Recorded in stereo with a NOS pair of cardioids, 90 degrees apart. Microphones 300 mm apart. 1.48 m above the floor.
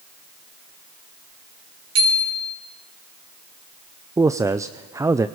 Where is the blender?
No blender in this recording.